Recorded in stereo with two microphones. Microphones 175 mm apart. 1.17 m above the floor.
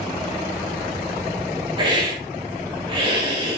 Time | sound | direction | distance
1.8 | a hiss | 25° right (ahead or behind) | 1.6 m